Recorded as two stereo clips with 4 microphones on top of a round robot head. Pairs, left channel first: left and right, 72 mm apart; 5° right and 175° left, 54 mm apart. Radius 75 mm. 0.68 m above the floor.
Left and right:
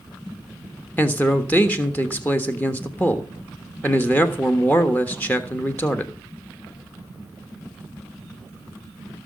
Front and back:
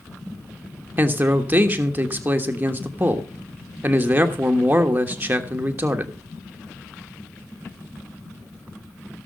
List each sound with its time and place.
1.0 s a man speaking: 145° left, 1.4 m